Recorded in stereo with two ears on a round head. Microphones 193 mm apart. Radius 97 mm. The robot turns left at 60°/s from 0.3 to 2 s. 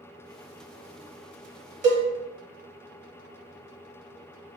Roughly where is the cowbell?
Right.